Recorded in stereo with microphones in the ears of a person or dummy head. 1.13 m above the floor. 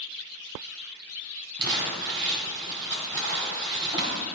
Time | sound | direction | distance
1.6 | crumpling | 15° right (ahead or behind) | 2.5 m